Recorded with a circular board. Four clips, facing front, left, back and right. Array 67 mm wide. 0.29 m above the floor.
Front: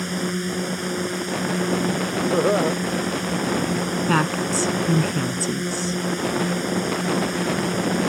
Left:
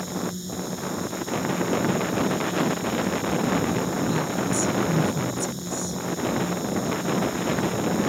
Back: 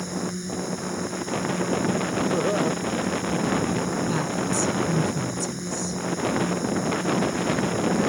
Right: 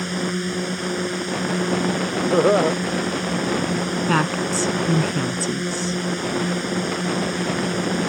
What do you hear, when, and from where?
0.0 s a drone: 60° right
2.3 s laughter: 70° right
4.1 s a woman speaking: 50° right